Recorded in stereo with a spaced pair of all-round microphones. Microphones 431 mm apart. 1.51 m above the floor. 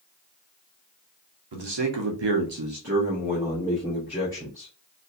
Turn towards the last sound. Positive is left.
turn(degrees=0)  # may be behind; listen again after turning